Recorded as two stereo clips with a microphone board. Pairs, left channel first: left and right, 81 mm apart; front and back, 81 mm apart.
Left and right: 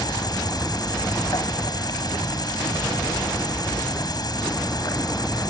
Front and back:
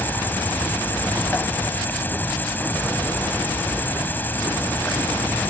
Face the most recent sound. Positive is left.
turn(degrees=65)